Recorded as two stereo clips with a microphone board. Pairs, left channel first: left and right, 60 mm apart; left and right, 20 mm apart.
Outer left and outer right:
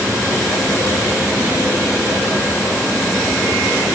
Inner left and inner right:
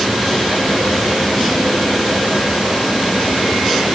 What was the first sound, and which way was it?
Only background noise.